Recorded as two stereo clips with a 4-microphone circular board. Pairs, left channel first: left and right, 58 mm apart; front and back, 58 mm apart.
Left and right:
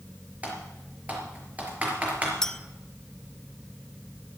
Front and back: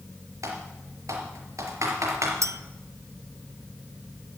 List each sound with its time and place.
0.4 s typing on a keyboard: 155° right, 4.5 m
2.4 s a clink: 170° left, 0.7 m